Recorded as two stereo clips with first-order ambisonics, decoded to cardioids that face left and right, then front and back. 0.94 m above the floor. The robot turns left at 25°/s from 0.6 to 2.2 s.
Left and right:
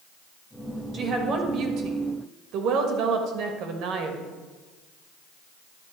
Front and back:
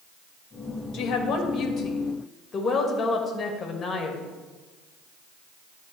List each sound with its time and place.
0.9 s a woman speaking: 35° right, 1.3 m; by 4.3 s 65° right, 1.3 m